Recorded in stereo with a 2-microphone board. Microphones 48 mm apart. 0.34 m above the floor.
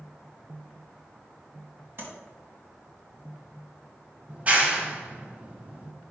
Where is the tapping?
55° right (ahead or behind), 2.5 m.